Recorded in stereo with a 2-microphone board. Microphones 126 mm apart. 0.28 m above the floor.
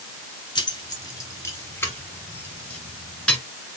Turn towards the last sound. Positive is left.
turn(degrees=5)  # may be behind; listen again after turning